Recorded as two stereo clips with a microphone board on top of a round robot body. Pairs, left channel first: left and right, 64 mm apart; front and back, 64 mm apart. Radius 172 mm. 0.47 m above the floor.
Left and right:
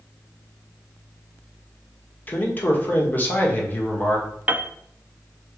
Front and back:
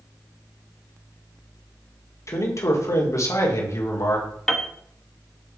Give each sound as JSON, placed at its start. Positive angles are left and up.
{"t": 2.3, "sound": "a man speaking", "azimuth_deg": 30, "distance_m": 1.9}
{"t": 4.5, "sound": "a piano", "azimuth_deg": -75, "distance_m": 0.9}